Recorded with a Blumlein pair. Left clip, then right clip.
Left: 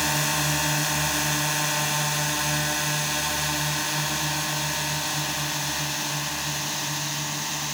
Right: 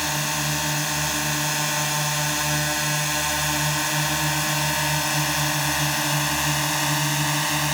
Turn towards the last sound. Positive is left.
turn(degrees=-25)